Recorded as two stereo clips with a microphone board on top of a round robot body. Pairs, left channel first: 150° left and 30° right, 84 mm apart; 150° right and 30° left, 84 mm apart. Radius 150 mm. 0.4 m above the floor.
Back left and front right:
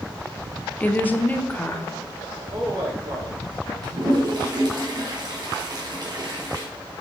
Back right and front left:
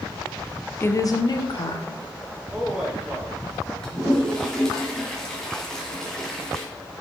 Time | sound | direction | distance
0.8 | a woman speaking | 165° right | 0.8 m
2.5 | a man speaking | 40° right | 3.5 m
3.8 | a toilet flushing | 65° right | 2 m